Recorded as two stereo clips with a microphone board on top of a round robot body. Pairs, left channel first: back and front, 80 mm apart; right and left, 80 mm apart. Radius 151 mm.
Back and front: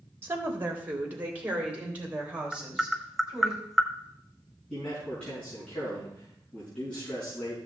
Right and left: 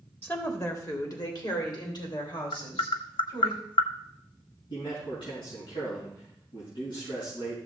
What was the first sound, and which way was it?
A woman speaking, 40° right.